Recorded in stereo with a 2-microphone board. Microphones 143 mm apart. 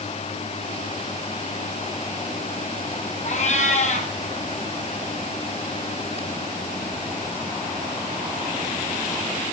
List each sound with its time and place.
3.2 s a cat meowing: 50° left (ahead or behind), 2 m